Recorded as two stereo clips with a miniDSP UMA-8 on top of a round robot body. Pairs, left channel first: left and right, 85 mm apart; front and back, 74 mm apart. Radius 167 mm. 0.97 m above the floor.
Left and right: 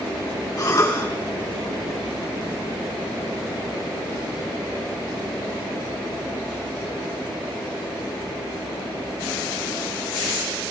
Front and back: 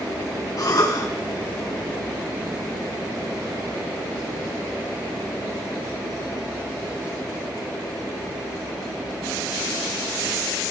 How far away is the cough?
About 7.5 m.